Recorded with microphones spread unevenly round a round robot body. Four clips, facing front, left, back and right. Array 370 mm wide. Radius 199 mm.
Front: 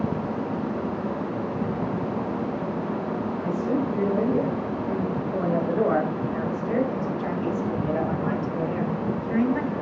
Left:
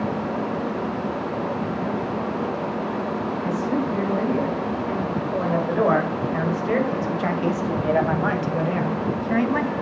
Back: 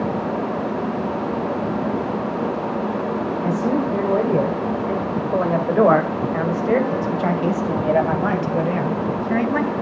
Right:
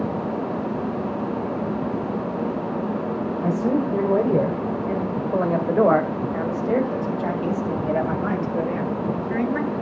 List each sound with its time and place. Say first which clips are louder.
3.4 s a man speaking: right 4 dB, back 5 dB; 125° right, 2.5 m; by 9.7 s 145° left, 4 m